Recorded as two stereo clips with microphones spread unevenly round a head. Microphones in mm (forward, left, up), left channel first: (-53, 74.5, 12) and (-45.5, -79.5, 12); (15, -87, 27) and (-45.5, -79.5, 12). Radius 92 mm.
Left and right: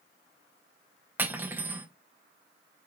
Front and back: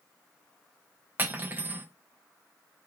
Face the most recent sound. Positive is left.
turn(degrees=-145)